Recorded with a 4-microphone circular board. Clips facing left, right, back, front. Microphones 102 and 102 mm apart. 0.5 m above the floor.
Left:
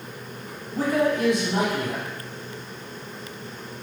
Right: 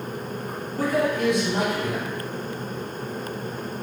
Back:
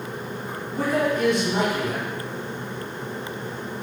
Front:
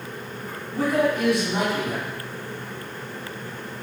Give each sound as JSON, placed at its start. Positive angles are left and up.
{"t": 0.7, "sound": "a man speaking", "azimuth_deg": 90, "distance_m": 1.3}